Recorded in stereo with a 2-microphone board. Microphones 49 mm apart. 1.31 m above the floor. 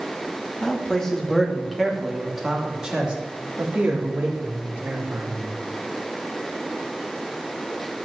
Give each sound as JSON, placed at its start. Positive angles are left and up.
{"t": 0.6, "sound": "a man speaking", "side_deg": 15, "distance_m": 2.5}